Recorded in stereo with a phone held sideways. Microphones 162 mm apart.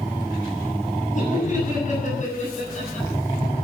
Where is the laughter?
50° left (ahead or behind), 7.5 m; by 3.1 s 45° left (ahead or behind), 8.5 m.